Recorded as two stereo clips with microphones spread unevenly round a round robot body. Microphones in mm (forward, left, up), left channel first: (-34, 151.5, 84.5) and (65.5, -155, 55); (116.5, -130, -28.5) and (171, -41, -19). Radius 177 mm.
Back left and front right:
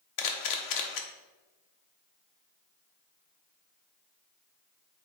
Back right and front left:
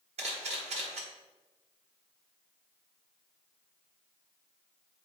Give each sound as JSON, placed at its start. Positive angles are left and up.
{"t": 0.2, "sound": "a camera shutter", "azimuth_deg": 85, "distance_m": 0.9}